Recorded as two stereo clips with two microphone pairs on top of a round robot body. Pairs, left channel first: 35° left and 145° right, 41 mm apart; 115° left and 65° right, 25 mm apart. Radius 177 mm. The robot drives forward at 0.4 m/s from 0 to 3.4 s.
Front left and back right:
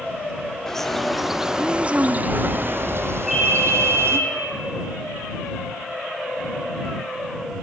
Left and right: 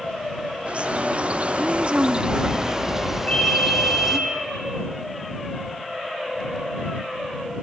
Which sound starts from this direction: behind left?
A ringtone, at 3.3 s.